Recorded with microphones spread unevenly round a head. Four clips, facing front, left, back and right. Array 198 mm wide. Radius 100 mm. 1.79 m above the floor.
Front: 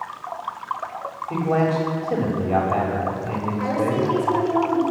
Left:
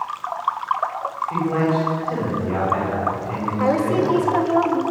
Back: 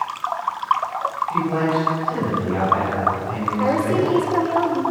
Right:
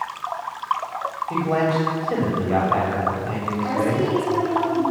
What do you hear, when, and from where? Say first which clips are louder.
1.3 s a man speaking: even, front 2 dB; 35° right, 7.5 m
3.6 s a woman speaking: left 3 dB, back 3 dB; 130° left, 4.5 m